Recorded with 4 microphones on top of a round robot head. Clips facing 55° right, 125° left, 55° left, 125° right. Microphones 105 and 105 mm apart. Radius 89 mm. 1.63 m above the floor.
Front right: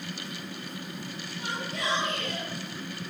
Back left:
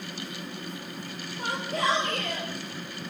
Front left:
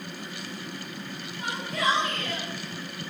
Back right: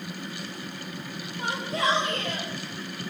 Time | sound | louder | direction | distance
1.4 | a shout | back left 5 dB, back right 1 dB | 175° left | 6.5 m